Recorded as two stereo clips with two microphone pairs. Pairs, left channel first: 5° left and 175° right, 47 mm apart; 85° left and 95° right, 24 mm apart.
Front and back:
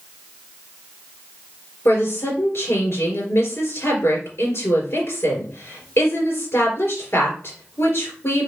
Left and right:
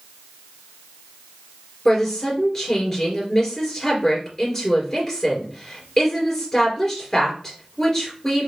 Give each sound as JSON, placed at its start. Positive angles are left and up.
{"t": 1.9, "sound": "a woman speaking", "azimuth_deg": 15, "distance_m": 3.0}